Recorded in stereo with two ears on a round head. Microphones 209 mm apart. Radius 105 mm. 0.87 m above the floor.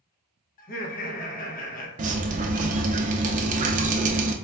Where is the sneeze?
No sneeze in this recording.